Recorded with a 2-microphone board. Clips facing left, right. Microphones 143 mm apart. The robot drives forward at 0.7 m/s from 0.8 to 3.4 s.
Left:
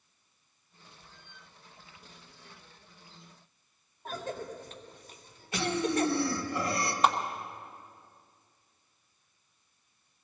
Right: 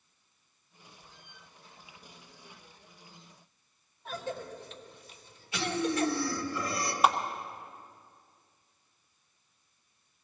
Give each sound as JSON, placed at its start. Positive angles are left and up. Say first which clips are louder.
{"t": 4.0, "sound": "a cough", "louder": "even", "side_deg": 45, "distance_m": 2.0}
{"t": 5.5, "sound": "breathing", "louder": "left 1 dB", "side_deg": 65, "distance_m": 1.6}
{"t": 7.0, "sound": "a clap", "louder": "right 1 dB", "side_deg": -10, "distance_m": 1.1}